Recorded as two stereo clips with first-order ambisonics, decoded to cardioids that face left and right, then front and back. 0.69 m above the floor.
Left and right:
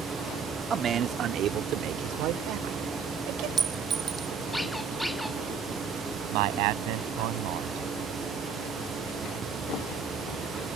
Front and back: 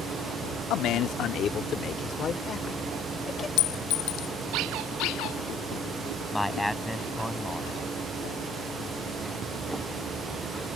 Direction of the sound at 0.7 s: 30° right.